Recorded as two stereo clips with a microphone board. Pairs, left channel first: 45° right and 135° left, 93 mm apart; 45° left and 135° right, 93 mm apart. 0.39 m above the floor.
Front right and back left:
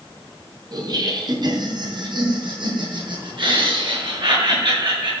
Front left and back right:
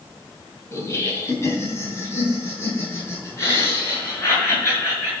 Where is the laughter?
100° left, 2.5 m; by 5.1 s 105° left, 7 m.